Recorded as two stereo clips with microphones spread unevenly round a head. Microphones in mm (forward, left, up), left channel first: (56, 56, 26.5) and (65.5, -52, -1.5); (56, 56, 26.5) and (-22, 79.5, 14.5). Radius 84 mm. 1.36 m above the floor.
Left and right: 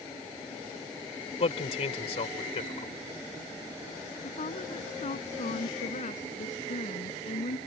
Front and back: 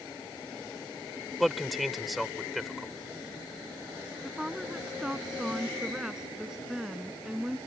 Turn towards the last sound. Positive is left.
turn(degrees=80)